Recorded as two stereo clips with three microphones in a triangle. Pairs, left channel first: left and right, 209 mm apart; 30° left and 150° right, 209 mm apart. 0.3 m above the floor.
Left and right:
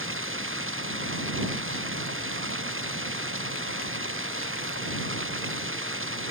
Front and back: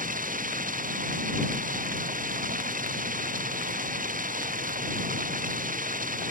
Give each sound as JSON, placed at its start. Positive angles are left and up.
{"t": 0.0, "sound": "running water", "azimuth_deg": -100}